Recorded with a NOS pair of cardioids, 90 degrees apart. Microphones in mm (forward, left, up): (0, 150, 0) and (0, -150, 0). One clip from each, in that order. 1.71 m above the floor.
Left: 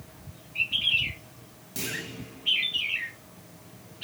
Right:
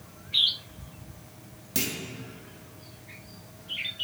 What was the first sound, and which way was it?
A clunk, 55° right.